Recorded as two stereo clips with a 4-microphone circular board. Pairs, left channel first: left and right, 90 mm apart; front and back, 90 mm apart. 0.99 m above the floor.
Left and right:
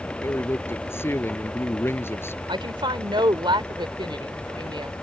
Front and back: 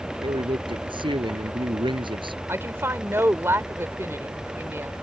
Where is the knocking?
I don't hear knocking.